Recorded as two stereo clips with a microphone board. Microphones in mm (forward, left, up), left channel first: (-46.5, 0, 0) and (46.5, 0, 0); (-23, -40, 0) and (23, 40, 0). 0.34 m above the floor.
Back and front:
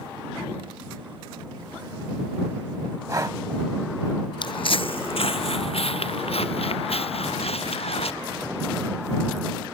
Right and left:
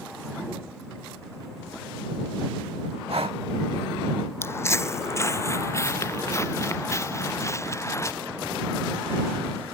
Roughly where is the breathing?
Ahead left.